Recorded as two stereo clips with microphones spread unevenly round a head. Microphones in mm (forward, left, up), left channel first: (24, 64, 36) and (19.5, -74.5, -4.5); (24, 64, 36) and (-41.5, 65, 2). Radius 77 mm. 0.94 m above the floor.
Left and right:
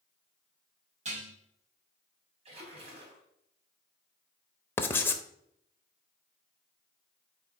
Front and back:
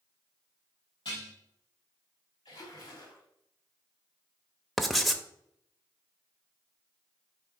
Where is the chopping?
I don't hear chopping.